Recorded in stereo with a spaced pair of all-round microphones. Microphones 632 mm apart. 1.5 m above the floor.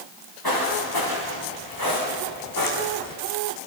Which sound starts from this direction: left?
Footsteps, at 0.4 s.